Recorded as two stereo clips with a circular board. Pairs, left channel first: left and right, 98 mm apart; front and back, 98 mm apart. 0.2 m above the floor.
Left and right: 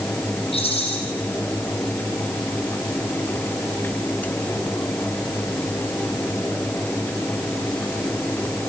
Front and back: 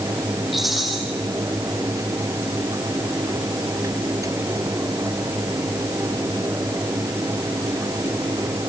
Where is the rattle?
90° left, 7 m.